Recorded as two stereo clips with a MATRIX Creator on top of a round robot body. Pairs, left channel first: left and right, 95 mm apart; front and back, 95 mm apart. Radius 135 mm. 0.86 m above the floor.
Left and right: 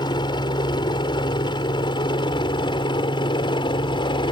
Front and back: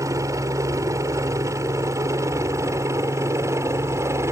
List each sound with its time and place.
0.0 s a helicopter: 125° left; by 4.3 s 120° left